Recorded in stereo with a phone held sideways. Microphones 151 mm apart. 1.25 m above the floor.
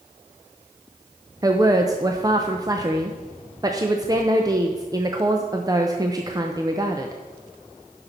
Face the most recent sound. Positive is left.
turn(degrees=-25)  # may be behind; listen again after turning